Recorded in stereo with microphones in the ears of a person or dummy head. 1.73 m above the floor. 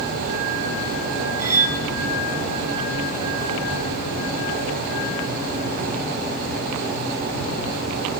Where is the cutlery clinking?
15° right (ahead or behind), 4 m.